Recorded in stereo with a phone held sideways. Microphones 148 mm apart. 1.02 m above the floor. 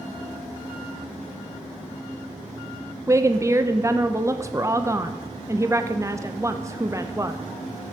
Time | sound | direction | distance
3.1 | a woman speaking | 20° right (ahead or behind) | 0.7 m